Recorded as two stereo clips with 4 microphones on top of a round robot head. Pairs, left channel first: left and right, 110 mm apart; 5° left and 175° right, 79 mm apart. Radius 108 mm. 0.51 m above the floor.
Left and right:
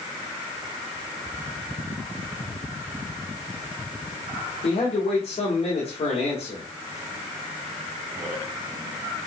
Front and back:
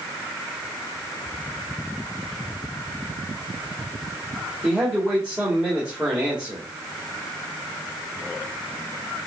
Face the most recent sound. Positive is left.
turn(degrees=105)